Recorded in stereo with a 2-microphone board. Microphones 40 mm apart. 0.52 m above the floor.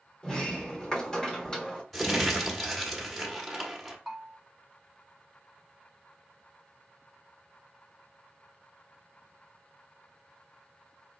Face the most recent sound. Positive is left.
turn(degrees=-5)  # may be behind; listen again after turning